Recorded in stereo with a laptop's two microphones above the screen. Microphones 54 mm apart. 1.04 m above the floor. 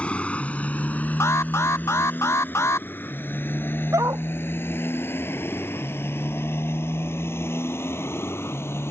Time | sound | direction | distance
0.0 | a motorcycle | 25° left (ahead or behind) | ?
1.2 | an alarm | 60° left (ahead or behind) | ?
3.9 | a dog barking | 75° right (ahead or behind) | ?